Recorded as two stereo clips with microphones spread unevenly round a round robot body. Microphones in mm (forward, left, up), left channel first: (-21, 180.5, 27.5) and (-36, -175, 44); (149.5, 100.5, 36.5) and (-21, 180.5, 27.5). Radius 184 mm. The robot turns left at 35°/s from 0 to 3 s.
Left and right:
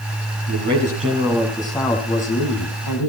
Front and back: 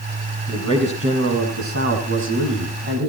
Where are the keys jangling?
No keys jangling in this recording.